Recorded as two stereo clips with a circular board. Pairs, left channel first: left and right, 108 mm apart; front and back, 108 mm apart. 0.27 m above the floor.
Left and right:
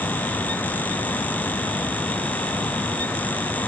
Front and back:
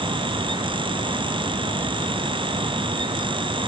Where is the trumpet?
I don't hear a trumpet.